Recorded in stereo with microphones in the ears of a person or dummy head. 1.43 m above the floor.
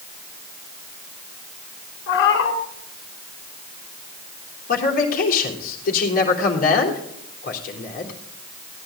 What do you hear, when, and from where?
2.1 s a cat meowing: 60° left (ahead or behind), 2.5 m
4.7 s a man speaking: 50° left (ahead or behind), 3.5 m